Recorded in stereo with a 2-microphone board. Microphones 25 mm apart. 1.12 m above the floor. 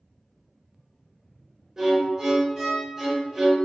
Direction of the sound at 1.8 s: 25° right (ahead or behind).